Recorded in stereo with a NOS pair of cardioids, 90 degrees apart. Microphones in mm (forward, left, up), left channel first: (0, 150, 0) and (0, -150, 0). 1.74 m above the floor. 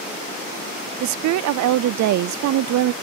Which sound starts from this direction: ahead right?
A woman speaking, at 1.0 s.